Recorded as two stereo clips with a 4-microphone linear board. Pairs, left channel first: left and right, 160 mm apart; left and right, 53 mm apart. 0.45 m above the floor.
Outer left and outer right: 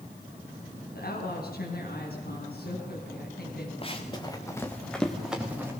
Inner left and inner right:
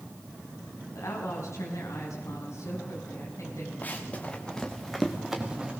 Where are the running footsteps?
35° left (ahead or behind), 3 m; by 5.7 s 15° right (ahead or behind), 3 m.